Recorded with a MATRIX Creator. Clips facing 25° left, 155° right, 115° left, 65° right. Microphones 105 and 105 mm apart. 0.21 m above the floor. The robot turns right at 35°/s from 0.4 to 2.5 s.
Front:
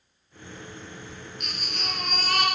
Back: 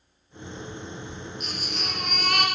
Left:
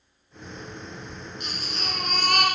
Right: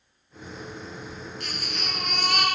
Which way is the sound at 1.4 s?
45° left.